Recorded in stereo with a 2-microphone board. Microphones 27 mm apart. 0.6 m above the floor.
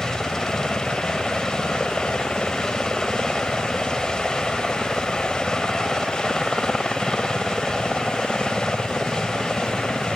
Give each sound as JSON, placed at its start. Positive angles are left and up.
{"t": 0.0, "sound": "a helicopter", "side_deg": 20}